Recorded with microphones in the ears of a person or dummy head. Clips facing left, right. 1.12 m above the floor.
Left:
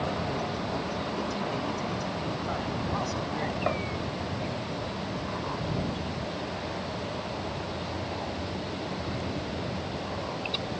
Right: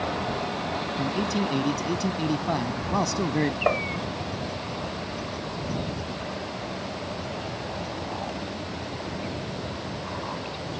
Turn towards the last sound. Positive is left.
turn(degrees=-70)  # may be behind; listen again after turning